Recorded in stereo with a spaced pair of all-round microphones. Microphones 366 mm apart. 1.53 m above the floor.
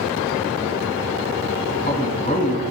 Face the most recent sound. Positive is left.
turn(degrees=25)  # may be behind; listen again after turning